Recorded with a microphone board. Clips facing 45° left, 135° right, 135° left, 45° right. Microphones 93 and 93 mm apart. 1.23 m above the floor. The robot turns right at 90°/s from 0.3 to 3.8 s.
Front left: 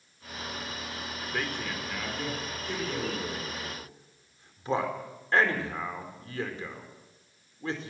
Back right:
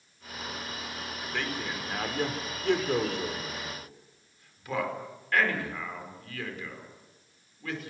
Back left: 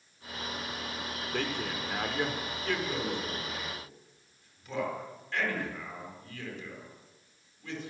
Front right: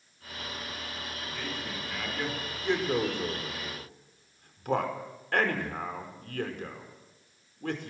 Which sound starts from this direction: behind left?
A man speaking, at 1.3 s.